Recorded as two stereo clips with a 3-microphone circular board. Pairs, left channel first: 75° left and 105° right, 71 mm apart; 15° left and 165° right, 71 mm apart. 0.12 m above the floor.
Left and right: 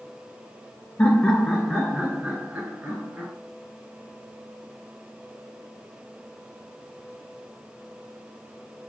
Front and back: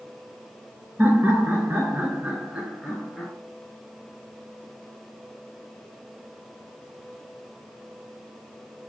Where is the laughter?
140° left, 1.4 m; by 3.3 s 70° right, 1.3 m.